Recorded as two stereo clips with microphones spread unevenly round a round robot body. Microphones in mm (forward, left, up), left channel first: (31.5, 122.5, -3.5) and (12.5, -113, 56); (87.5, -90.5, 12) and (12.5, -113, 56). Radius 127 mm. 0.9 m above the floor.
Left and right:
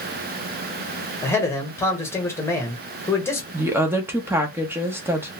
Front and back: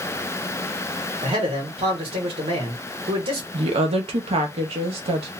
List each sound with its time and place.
1.2 s a man speaking: 150° left, 1.2 m
3.5 s a woman speaking: straight behind, 0.7 m